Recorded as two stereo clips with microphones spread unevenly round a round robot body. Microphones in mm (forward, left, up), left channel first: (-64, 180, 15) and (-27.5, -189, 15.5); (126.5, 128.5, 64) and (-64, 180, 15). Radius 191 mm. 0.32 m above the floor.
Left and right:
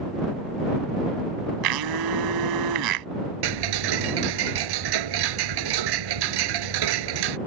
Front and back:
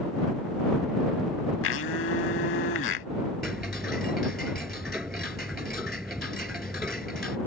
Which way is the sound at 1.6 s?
55° right.